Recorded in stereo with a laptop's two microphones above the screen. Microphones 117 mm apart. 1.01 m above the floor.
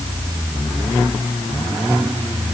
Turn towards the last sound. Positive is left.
No sound to turn to.